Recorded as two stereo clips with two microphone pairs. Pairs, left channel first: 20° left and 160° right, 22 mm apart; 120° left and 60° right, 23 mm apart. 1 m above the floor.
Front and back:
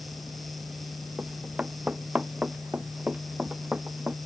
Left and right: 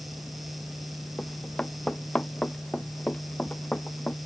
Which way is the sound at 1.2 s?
165° left.